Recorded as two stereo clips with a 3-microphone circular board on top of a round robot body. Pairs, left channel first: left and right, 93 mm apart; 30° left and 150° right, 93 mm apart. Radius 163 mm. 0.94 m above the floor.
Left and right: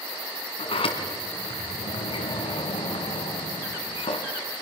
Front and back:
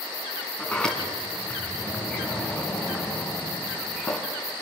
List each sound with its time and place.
0.6 s a sliding door: 115° left, 3 m